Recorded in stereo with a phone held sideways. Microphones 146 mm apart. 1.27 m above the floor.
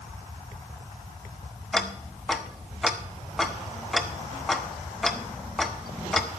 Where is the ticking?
Centre (ahead or behind), 0.9 m.